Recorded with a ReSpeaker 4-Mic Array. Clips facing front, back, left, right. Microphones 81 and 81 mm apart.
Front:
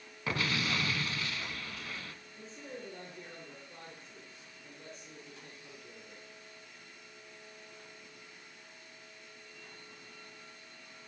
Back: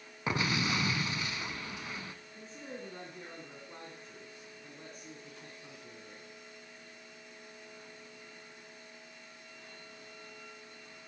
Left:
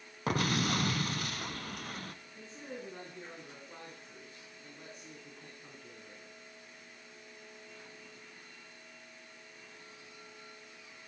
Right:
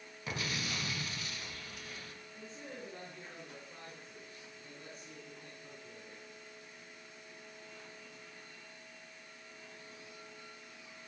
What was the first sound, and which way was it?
An explosion, 110° left.